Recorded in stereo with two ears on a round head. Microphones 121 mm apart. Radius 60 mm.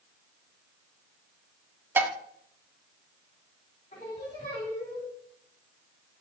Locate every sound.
2.0 s dishes clattering: 15° right (ahead or behind), 0.8 m
3.9 s singing: 50° left (ahead or behind), 3 m